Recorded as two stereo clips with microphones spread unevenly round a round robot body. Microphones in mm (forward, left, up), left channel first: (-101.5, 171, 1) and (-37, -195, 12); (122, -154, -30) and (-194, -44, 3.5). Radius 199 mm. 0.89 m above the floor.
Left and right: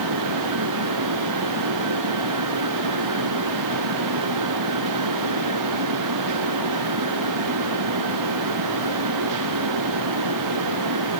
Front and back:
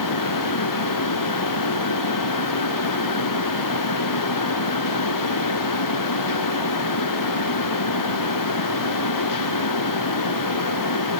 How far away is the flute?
I don't hear a flute.